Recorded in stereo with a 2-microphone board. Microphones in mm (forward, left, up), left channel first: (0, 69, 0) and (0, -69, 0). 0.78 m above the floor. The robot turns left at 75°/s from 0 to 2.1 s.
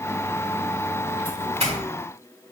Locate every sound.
1.2 s a doorbell: 35° right (ahead or behind), 1.8 m; by 1.8 s 55° right (ahead or behind), 1.8 m